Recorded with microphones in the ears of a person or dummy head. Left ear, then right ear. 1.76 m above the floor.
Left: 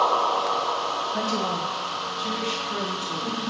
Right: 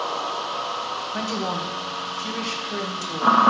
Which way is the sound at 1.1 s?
15° right (ahead or behind).